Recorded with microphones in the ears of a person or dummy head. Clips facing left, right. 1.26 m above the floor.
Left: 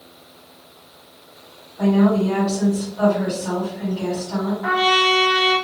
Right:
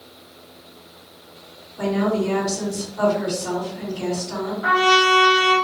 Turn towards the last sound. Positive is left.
turn(degrees=-45)  # may be behind; listen again after turning